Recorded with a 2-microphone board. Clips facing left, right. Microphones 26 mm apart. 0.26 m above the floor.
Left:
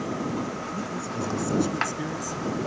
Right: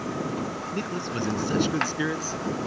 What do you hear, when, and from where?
0.7 s a man speaking: 60° right (ahead or behind); by 2.6 s 40° right (ahead or behind)